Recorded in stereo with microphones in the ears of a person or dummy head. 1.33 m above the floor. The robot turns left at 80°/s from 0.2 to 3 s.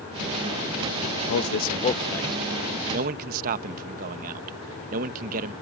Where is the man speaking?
80° left; by 5.5 s 55° right (ahead or behind).